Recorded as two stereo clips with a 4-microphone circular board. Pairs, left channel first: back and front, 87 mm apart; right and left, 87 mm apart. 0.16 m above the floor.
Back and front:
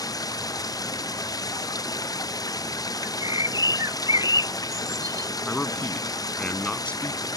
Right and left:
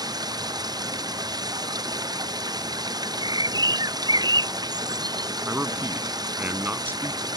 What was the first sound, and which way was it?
Running water, 135° left.